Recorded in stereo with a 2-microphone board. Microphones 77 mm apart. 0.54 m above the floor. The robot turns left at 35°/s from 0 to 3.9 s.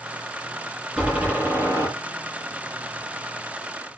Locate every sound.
1.0 s a door slam: 10° right, 8.5 m; by 1.9 s 45° right, 8.5 m